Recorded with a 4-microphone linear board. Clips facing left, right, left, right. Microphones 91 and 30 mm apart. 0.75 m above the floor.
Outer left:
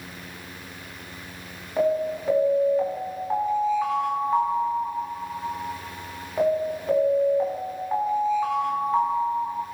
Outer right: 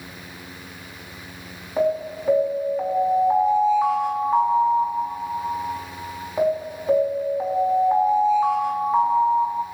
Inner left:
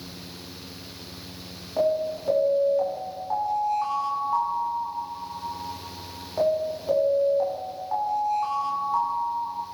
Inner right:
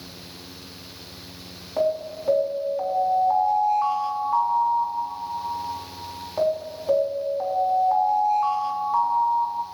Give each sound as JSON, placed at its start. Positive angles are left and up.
{"t": 1.8, "sound": "an alarm", "side_deg": -10, "distance_m": 6.5}